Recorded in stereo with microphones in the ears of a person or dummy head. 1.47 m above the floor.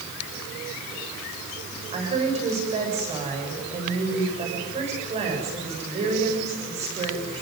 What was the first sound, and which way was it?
A woman speaking, 30° right (ahead or behind).